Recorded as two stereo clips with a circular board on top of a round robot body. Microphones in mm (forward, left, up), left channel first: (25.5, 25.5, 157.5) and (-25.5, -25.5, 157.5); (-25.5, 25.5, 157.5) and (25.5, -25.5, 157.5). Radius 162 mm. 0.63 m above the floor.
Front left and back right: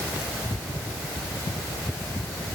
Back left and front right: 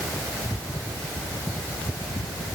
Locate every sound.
Only background noise.